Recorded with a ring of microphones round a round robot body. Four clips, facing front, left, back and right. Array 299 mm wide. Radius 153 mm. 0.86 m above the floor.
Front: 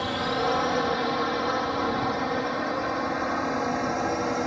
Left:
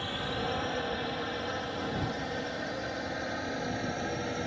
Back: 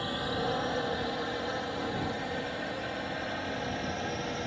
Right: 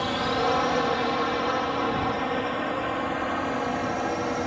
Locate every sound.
0.0 s a drone: 55° right; by 4.5 s 35° right